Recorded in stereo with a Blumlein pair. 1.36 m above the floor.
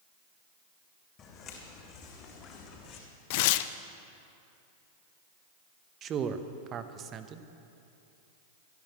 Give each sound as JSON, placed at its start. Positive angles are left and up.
{"t": 1.2, "sound": "footsteps", "azimuth_deg": 30, "distance_m": 4.5}
{"t": 3.3, "sound": "tearing paper", "azimuth_deg": 50, "distance_m": 0.5}
{"t": 6.0, "sound": "a man speaking", "azimuth_deg": -30, "distance_m": 1.0}